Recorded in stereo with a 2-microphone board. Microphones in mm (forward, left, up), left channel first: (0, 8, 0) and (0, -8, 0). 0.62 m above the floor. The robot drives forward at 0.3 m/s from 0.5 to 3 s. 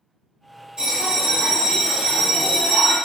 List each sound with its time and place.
0.8 s a bell: 60° right (ahead or behind), 1.6 m; by 3.0 s 70° right (ahead or behind), 1.5 m